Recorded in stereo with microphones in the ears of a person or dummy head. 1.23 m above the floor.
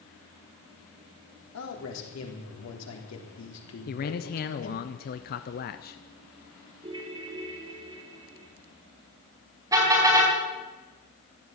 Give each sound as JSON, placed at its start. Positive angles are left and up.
{"t": 1.5, "sound": "a man speaking", "side_deg": 80, "distance_m": 3.5}
{"t": 3.9, "sound": "a man speaking", "side_deg": 45, "distance_m": 0.6}
{"t": 6.8, "sound": "a ringtone", "side_deg": -25, "distance_m": 2.5}
{"t": 9.7, "sound": "a car horn", "side_deg": -20, "distance_m": 4.5}